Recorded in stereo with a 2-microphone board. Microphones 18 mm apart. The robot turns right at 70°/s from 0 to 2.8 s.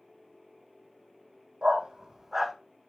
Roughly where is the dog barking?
Right.